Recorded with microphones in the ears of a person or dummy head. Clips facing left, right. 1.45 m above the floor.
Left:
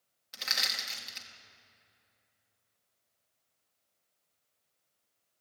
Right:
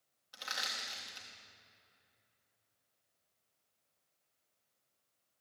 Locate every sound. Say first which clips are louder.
0.3 s crushing: left 3 dB; 30° left (ahead or behind), 3 m